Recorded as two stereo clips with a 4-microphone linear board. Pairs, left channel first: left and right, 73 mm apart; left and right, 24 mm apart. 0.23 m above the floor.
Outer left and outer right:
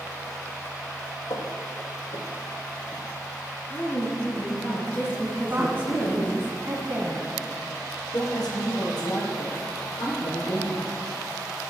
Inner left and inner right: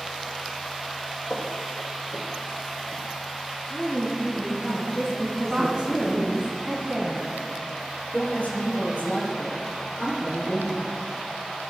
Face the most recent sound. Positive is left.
turn(degrees=70)  # may be behind; listen again after turning